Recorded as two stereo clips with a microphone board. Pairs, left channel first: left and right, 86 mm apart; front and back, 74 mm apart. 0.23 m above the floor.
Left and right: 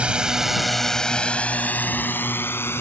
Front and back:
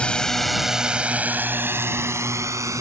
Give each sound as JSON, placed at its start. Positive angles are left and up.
{"t": 0.0, "sound": "a drone", "azimuth_deg": -45}